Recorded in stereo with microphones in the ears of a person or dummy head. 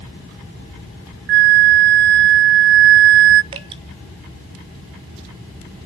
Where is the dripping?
20° right (ahead or behind), 0.7 m.